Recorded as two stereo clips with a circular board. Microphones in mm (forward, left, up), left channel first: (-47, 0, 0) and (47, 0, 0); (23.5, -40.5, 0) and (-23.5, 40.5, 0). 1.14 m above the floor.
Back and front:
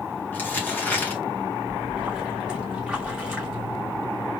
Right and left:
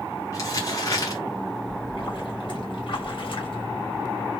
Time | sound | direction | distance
0.3 | crumpling | 110° right | 2 m
1.7 | a splash | 80° right | 2 m